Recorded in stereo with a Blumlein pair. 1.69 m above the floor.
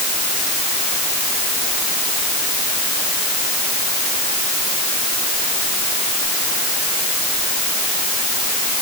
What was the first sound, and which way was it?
Only background noise.